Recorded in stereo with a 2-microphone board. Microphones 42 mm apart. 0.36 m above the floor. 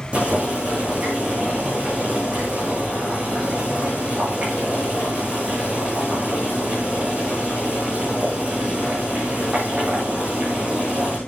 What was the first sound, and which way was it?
Boiling, 30° right (ahead or behind).